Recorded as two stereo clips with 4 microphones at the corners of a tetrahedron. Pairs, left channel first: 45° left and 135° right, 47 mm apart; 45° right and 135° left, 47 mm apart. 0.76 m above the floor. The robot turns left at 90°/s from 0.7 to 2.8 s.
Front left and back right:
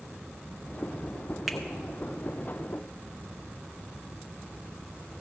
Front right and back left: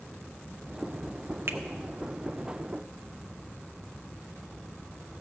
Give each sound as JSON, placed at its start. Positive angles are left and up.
{"t": 1.5, "sound": "a finger snap", "azimuth_deg": 140, "distance_m": 0.9}